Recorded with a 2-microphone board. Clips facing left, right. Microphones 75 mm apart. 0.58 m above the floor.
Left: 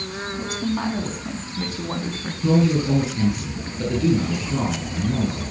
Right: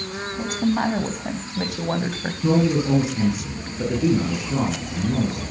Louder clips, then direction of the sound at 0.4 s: Right 4 dB; 50° right (ahead or behind).